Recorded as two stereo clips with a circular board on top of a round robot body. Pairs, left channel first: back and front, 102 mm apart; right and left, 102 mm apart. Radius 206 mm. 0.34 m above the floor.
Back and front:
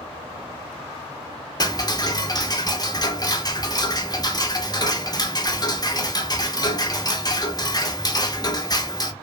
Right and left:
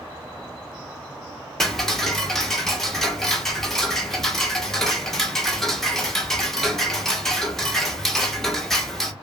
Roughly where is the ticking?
Behind.